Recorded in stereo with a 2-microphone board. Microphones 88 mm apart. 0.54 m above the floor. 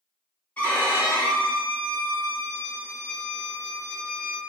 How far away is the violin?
About 0.8 m.